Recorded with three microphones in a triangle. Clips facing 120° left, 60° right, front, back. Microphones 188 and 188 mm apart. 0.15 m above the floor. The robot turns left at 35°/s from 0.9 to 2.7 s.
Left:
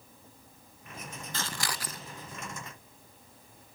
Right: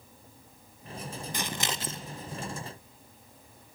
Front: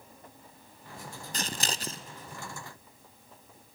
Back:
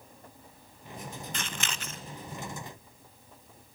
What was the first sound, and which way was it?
Scissors, straight ahead.